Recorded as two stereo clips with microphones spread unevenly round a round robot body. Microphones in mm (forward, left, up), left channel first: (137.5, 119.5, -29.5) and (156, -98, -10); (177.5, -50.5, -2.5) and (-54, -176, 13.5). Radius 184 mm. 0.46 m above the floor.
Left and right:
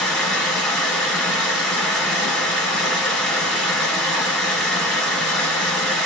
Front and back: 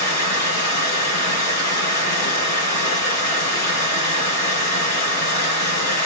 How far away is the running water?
About 1.8 m.